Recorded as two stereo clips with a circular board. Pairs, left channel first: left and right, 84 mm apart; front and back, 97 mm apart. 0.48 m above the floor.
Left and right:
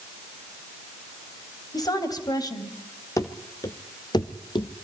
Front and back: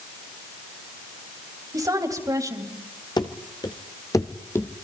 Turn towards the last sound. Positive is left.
turn(degrees=70)